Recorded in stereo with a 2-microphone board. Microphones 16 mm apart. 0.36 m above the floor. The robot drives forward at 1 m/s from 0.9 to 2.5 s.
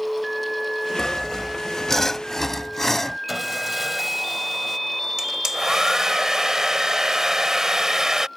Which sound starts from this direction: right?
A hair dryer, at 5.2 s.